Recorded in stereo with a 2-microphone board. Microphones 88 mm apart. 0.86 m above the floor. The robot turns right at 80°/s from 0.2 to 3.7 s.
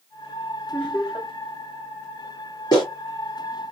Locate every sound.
0.7 s laughter: 170° right, 1.1 m; by 1.3 s 120° right, 1.1 m
2.7 s a clap: 45° left (ahead or behind), 2 m; by 2.9 s 55° left (ahead or behind), 2 m